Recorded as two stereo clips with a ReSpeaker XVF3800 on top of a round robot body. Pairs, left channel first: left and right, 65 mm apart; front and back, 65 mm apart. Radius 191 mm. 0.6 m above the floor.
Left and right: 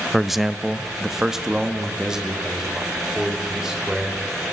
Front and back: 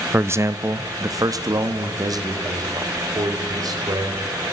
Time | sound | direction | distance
0.1 | a man speaking | straight behind | 0.6 m